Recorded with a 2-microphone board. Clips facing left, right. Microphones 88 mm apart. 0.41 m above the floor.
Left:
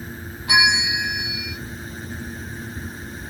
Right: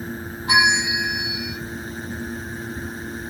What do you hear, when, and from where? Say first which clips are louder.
0.5 s a bell: right 1 dB; 30° right (ahead or behind), 0.9 m